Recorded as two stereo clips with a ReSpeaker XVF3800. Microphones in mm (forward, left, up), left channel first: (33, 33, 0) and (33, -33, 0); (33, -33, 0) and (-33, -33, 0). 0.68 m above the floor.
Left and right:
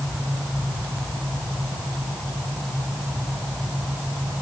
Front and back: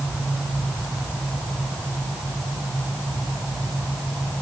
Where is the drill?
No drill in this recording.